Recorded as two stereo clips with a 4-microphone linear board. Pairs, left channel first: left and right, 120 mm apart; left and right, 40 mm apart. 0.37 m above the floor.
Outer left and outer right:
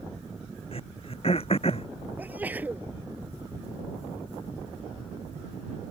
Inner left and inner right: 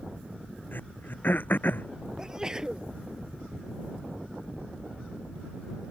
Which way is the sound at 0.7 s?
55° left (ahead or behind).